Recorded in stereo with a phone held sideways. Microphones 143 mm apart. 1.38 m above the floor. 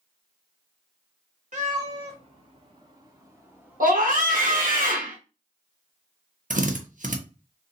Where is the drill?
65° right (ahead or behind), 0.8 m.